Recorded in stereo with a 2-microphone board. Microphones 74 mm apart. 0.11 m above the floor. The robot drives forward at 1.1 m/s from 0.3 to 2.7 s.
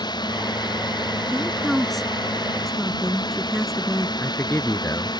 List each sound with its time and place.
0.0 s a drone: 85° left; by 5.2 s 80° left
1.3 s a woman speaking: 5° left (ahead or behind)
4.2 s a man speaking: 35° left (ahead or behind)